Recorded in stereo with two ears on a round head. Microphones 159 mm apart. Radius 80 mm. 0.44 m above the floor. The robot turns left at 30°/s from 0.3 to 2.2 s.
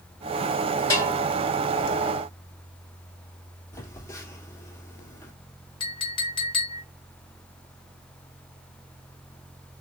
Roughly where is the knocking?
I don't hear knocking.